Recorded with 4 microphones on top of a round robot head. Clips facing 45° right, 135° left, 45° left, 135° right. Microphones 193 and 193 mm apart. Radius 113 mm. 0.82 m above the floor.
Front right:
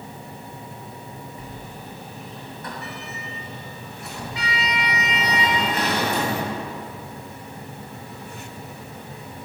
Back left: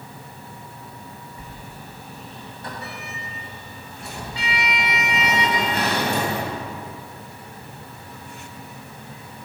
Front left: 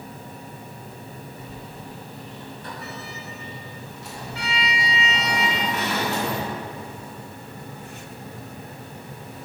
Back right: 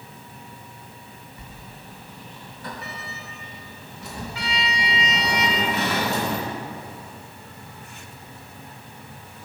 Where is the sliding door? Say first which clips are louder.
Front right 3 dB, front left 6 dB; 160° right, 2 m.